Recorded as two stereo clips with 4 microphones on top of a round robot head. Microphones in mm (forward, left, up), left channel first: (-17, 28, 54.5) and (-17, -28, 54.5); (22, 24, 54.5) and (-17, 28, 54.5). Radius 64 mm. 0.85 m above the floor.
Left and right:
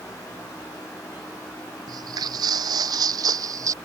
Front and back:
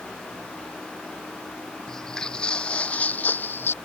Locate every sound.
1.9 s footsteps: 85° right; by 3.7 s 50° right